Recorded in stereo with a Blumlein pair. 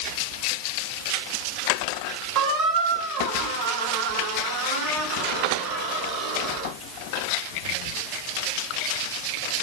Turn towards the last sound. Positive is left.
turn(degrees=-35)